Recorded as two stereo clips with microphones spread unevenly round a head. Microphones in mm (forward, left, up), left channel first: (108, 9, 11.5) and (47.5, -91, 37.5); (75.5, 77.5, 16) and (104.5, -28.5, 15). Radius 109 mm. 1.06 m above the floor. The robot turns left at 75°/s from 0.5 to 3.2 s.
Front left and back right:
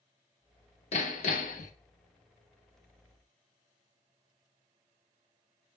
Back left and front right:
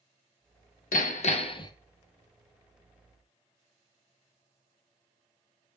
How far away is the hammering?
About 1.1 m.